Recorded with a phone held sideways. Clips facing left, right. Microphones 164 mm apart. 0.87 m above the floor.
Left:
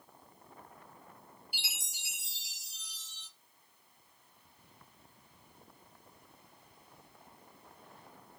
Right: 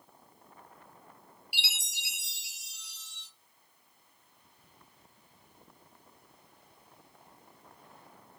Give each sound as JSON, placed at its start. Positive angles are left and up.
{"t": 1.5, "sound": "a chime", "side_deg": -65, "distance_m": 0.6}